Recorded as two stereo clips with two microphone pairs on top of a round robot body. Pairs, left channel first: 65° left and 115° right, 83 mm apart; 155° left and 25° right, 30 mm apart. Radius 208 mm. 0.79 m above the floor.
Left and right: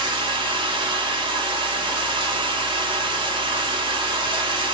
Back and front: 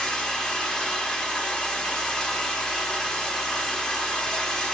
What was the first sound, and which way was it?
Running water, 140° right.